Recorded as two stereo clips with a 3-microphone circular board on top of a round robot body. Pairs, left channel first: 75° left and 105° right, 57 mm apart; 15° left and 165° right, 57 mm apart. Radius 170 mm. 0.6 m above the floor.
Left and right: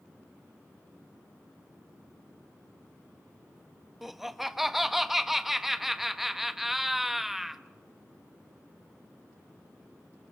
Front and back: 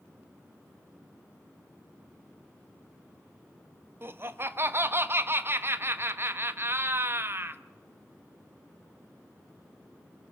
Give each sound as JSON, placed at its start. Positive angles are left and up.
{"t": 4.0, "sound": "laughter", "azimuth_deg": 170, "distance_m": 1.2}